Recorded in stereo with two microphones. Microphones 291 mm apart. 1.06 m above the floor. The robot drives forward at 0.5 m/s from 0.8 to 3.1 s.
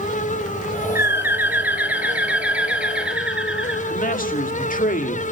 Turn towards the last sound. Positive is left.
turn(degrees=30)  # may be behind; listen again after turning